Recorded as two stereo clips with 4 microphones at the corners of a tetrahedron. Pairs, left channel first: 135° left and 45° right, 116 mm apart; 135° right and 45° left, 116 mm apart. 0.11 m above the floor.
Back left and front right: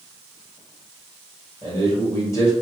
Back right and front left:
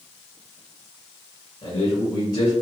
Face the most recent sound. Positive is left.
turn(degrees=-170)